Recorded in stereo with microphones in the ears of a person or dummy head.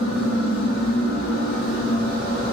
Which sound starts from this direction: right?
A machine running, at 0.0 s.